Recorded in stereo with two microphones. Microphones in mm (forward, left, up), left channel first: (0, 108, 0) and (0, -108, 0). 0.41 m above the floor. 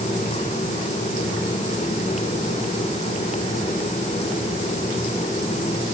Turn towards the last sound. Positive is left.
No sound to turn to.